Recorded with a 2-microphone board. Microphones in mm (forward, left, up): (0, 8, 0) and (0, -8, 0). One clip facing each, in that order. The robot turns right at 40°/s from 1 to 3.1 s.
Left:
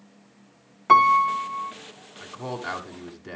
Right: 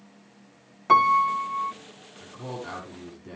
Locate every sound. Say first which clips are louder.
0.9 s a piano: left 2 dB; 15° left (ahead or behind), 0.6 m; by 1.7 s 10° right (ahead or behind), 0.6 m
2.2 s a man speaking: left 4 dB; 50° left (ahead or behind), 1.7 m; by 3.4 s 35° left (ahead or behind), 1.7 m